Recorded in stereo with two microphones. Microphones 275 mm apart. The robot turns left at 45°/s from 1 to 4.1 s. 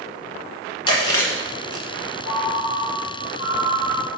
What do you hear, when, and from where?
0.9 s chewing: 15° left (ahead or behind), 1.8 m; by 1.9 s 20° right (ahead or behind), 1.8 m
2.2 s a ringtone: 65° left, 1.8 m; by 4.1 s 20° right, 1.8 m